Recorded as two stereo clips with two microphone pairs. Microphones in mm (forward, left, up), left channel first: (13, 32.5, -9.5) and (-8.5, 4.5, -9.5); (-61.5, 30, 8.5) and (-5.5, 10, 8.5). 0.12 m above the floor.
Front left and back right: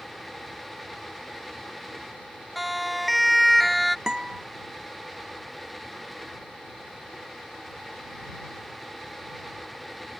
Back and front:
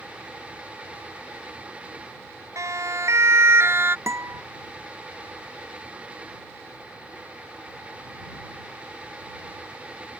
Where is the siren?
40° right; by 4.0 s 35° right.